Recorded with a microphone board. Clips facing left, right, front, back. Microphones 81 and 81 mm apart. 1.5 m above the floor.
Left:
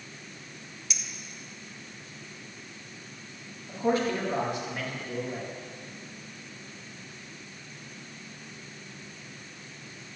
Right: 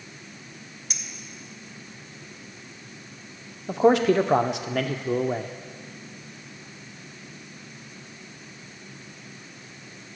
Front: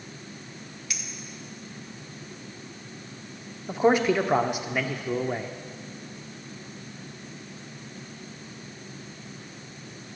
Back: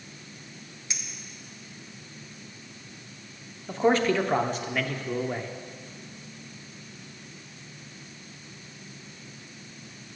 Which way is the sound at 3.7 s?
80° right.